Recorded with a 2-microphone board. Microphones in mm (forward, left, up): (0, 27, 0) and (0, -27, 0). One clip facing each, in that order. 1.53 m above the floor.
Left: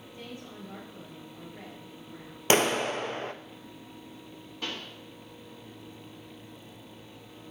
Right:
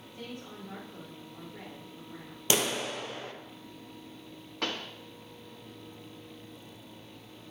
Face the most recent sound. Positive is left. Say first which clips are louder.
# right 3 dB
turn(degrees=-65)  # may be behind; listen again after turning